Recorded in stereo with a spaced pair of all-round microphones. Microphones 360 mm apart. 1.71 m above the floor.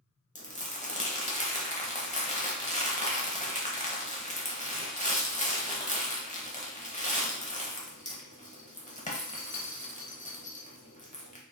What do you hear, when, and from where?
0.3 s crumpling: 20° left (ahead or behind), 0.8 m